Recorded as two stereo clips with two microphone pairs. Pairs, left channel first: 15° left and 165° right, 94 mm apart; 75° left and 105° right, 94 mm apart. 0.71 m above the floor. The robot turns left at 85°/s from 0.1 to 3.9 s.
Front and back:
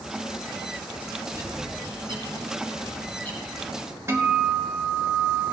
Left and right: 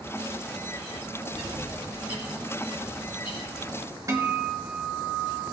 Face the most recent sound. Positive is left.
turn(degrees=-125)